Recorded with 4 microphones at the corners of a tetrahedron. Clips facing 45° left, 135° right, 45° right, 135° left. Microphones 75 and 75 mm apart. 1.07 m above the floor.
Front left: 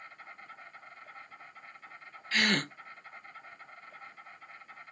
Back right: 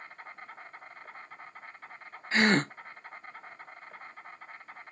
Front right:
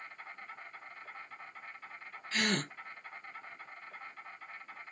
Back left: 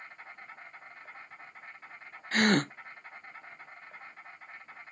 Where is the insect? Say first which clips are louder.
Back right 3 dB, even; 170° right, 3 m.